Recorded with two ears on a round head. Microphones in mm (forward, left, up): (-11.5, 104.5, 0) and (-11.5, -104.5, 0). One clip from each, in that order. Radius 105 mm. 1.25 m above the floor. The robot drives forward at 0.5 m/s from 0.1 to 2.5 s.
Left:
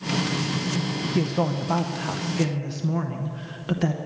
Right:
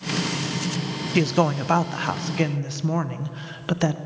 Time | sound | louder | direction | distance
1.1 | a woman speaking | right 6 dB | 60° right (ahead or behind) | 0.5 m